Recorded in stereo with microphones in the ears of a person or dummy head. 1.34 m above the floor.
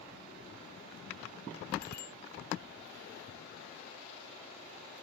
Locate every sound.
1.8 s a bicycle bell: 65° left (ahead or behind)